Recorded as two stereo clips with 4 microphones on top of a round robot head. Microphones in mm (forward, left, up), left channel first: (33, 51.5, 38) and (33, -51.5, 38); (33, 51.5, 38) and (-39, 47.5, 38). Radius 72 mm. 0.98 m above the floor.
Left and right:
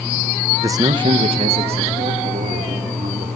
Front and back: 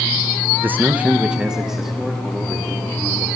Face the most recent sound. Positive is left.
turn(degrees=-85)